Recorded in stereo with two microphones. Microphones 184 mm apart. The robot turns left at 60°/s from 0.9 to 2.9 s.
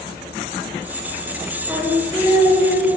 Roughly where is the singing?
Behind.